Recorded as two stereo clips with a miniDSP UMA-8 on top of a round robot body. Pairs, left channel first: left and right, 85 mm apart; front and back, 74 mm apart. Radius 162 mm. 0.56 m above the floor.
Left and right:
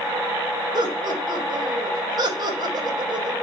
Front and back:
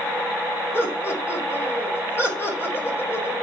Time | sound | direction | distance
0.7 | laughter | 55° right | 3.5 m